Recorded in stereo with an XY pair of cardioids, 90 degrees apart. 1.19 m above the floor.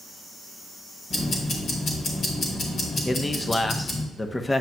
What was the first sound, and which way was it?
Ticking, 55° left.